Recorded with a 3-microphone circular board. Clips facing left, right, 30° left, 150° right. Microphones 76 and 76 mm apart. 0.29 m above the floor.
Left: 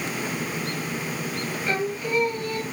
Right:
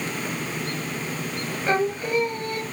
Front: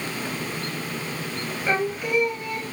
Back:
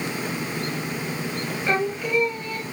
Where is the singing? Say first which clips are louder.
Right 4 dB, even; 45° right, 0.6 m.